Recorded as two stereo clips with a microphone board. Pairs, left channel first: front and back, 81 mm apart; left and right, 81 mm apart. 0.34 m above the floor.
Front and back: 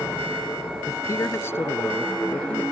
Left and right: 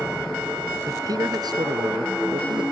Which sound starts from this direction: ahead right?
A man speaking, at 0.9 s.